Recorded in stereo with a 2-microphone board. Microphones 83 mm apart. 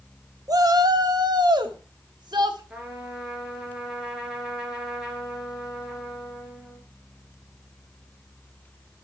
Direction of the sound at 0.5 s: 45° right (ahead or behind).